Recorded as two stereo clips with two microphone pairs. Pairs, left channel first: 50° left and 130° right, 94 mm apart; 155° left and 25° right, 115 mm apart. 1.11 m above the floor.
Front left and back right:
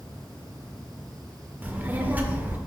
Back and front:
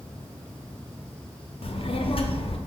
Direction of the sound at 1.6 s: 165° left.